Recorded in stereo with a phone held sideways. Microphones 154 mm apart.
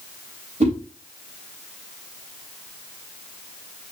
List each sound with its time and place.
0.6 s a whoosh: 45° right (ahead or behind), 3 m